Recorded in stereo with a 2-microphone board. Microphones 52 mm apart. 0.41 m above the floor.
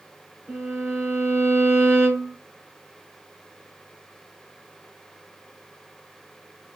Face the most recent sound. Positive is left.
turn(degrees=-45)  # may be behind; listen again after turning